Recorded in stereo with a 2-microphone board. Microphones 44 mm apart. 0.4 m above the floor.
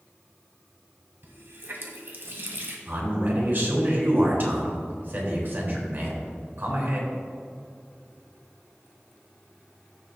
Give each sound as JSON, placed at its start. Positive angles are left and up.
{"t": 1.2, "sound": "a running tap", "side_deg": -60, "distance_m": 1.6}
{"t": 2.9, "sound": "a man speaking", "side_deg": -50, "distance_m": 3.0}